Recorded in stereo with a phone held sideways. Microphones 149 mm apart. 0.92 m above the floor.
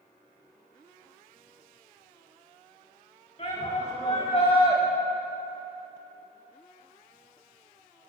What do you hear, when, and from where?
3.4 s a shout: 45° left (ahead or behind), 4 m; by 4.8 s 35° left (ahead or behind), 4 m